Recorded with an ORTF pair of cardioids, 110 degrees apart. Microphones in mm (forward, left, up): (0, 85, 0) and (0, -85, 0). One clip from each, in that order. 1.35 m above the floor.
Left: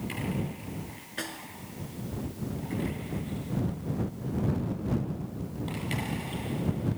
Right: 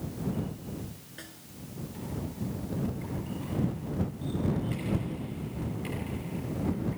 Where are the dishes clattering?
I don't hear dishes clattering.